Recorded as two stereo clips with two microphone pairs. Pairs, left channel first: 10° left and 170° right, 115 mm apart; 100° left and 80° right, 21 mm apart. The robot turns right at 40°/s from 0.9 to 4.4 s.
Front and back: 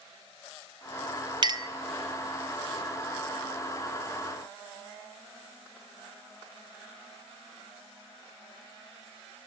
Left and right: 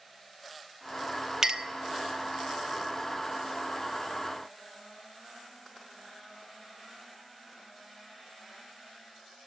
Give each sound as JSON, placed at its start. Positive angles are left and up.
{"t": 1.4, "sound": "a clink", "azimuth_deg": -130, "distance_m": 0.6}